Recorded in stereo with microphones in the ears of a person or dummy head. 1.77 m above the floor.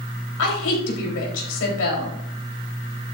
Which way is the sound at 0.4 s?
75° left (ahead or behind).